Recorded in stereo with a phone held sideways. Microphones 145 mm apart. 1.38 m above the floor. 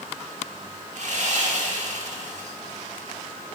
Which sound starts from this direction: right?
Sawing, at 0.9 s.